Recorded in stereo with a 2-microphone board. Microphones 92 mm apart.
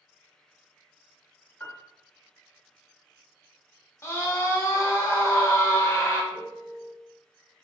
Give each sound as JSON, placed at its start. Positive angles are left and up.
{"t": 1.6, "sound": "a piano", "side_deg": 20, "distance_m": 0.7}
{"t": 4.0, "sound": "a scream", "side_deg": 30, "distance_m": 0.9}
{"t": 6.3, "sound": "a piano", "side_deg": -60, "distance_m": 1.9}